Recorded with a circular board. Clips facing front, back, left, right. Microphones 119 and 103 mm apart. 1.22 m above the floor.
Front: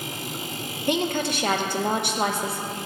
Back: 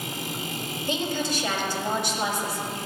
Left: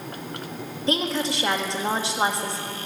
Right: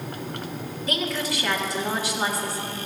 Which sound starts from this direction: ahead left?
A woman speaking, at 0.9 s.